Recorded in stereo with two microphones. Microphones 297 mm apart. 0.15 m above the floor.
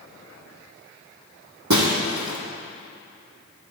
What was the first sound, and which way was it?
Breaking glass, 75° right (ahead or behind).